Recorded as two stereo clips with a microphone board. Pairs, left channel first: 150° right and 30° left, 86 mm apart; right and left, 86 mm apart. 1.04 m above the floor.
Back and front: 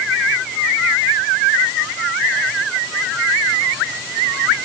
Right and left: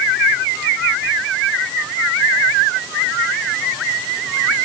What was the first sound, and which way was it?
Only background noise.